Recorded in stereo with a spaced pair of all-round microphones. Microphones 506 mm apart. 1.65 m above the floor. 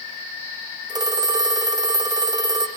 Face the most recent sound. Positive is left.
turn(degrees=-10)  # may be behind; listen again after turning